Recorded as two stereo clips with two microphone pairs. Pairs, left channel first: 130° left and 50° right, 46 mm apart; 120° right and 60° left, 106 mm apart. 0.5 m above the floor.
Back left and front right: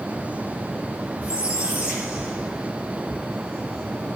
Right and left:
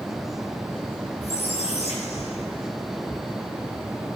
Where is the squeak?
115° right, 5.5 m.